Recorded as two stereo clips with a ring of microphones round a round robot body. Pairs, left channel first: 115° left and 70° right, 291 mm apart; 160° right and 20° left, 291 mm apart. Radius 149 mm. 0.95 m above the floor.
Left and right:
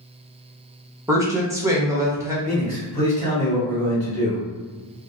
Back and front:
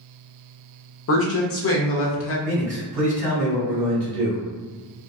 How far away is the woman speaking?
About 0.8 m.